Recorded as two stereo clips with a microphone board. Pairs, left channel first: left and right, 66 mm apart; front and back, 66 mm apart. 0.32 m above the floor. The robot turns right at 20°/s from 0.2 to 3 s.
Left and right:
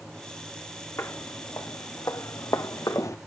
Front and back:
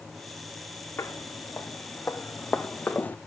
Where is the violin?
I don't hear a violin.